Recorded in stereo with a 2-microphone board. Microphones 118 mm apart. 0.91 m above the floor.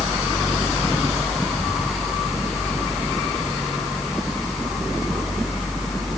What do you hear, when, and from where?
Only background noise.